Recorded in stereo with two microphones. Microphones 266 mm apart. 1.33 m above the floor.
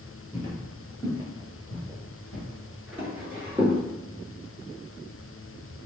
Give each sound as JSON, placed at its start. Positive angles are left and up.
{"t": 0.3, "sound": "footsteps", "side_deg": 15, "distance_m": 1.6}